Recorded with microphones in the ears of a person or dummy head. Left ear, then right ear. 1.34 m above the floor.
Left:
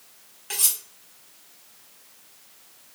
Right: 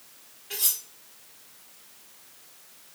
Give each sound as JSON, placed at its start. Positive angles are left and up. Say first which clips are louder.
{"t": 0.5, "sound": "cutlery clinking", "louder": "left 4 dB", "side_deg": 50, "distance_m": 1.2}